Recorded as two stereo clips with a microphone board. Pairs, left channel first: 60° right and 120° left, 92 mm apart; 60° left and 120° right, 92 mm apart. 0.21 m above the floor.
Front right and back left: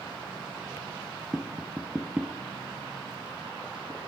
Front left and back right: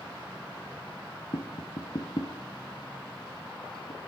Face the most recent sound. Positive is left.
turn(degrees=40)